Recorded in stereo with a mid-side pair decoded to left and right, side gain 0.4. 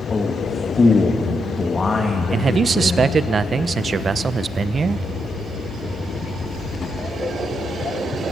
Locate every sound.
0.1 s a man speaking: 35° left, 2.5 m
2.3 s a man speaking: 45° right, 1.0 m